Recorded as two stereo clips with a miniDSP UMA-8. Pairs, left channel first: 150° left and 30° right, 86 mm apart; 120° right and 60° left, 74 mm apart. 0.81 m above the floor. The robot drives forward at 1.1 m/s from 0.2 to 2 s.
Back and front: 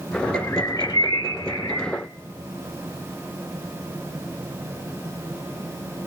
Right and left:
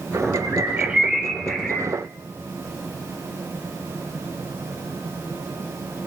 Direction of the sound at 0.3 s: 75° left.